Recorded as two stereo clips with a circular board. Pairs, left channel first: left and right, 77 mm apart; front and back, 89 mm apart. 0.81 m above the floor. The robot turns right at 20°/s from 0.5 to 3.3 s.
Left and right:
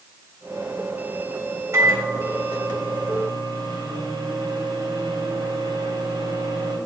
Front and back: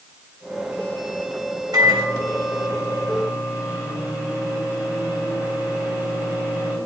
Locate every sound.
1.7 s a microwave: 135° right, 3 m; by 6.8 s 105° right, 3 m